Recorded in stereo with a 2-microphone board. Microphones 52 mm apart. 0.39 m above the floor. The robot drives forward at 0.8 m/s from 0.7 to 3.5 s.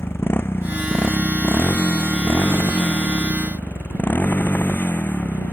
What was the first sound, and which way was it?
A motorcycle, 45° left (ahead or behind).